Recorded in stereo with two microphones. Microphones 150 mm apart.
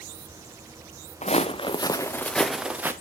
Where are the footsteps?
45° left (ahead or behind), 1.1 m; by 2.9 s 15° right (ahead or behind), 1.1 m.